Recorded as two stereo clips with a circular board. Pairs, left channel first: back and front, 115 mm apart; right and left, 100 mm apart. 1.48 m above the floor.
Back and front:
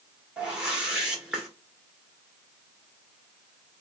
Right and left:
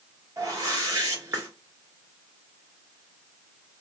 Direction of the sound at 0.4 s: 80° left.